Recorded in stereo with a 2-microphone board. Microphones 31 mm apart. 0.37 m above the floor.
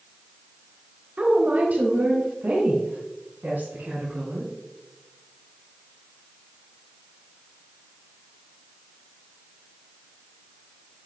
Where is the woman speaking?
45° right (ahead or behind), 1.2 m; by 4.5 s 65° right (ahead or behind), 4 m.